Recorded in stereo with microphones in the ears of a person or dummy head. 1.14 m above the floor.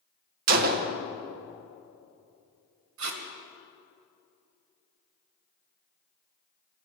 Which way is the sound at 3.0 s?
65° right (ahead or behind).